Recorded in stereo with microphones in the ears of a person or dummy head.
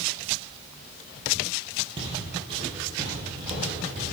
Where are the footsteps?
30° right (ahead or behind), 3 m; by 4.0 s 40° right (ahead or behind), 5.5 m.